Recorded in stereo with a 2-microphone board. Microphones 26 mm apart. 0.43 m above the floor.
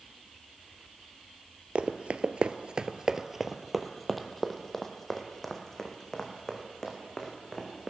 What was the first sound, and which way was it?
Running footsteps, 50° right (ahead or behind).